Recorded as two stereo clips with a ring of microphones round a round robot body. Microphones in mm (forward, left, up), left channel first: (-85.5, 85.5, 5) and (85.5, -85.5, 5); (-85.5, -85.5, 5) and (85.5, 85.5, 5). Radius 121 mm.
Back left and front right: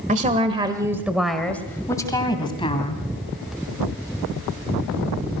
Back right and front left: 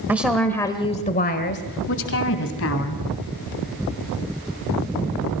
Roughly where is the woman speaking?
Ahead right.